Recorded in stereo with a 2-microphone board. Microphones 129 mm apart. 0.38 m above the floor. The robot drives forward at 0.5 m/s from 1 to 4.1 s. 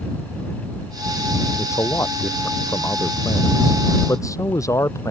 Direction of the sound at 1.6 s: 20° left (ahead or behind).